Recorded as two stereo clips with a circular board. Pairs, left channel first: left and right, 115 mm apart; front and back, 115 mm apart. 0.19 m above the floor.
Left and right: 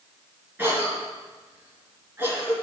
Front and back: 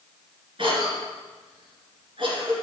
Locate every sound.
0.6 s a cough: 160° right, 2.5 m